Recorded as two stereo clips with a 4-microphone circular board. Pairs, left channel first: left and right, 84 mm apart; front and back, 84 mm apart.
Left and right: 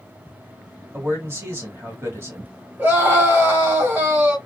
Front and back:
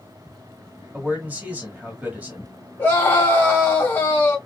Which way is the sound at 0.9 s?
125° right.